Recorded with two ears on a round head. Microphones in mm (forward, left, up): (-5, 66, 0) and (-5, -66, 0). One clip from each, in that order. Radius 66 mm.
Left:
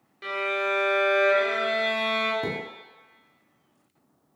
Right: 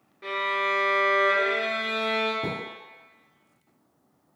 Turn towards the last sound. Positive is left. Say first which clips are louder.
# left 1 dB
turn(degrees=25)  # may be behind; listen again after turning